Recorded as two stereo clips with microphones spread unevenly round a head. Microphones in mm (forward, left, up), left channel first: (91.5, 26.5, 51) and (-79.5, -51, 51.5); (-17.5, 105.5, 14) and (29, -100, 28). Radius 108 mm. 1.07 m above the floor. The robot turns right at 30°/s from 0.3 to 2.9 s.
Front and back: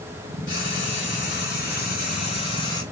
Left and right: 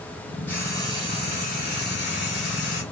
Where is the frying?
25° left, 2 m; by 2.8 s 95° left, 2 m.